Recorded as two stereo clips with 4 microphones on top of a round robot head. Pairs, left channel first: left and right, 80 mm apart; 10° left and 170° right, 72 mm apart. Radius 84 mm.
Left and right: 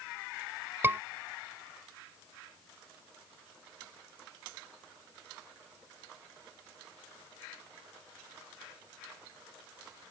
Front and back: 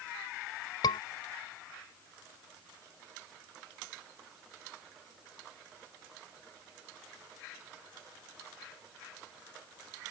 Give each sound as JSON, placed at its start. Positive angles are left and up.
{"t": 0.8, "sound": "a scream", "azimuth_deg": -25}